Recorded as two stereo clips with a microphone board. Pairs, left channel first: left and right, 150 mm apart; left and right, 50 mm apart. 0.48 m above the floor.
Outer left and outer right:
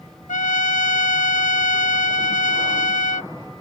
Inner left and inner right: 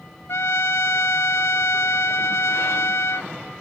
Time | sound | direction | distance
0.3 | a trumpet | 60° left (ahead or behind) | ?